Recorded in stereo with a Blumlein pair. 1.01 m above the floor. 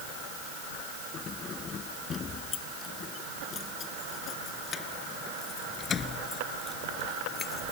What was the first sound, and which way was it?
Keys jangling, 25° left.